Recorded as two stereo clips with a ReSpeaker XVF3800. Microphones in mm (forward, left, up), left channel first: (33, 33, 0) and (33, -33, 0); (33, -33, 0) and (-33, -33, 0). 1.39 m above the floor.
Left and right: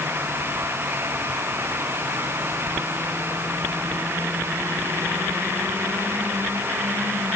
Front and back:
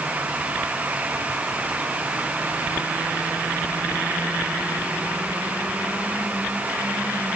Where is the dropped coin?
I don't hear a dropped coin.